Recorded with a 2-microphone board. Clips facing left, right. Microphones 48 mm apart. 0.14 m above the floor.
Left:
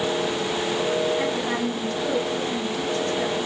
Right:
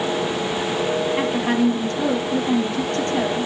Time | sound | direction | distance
1.2 | a woman speaking | 65° right (ahead or behind) | 4.5 m